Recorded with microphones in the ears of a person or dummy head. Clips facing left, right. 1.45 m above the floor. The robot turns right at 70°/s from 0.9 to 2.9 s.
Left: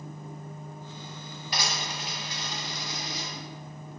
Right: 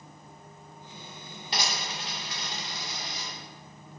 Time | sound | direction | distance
1.5 | a dropped coin | 25° right (ahead or behind) | 2 m